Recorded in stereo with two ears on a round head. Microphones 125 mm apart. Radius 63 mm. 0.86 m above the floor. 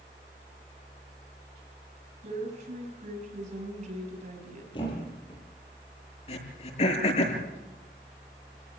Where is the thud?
35° left (ahead or behind), 8.5 m.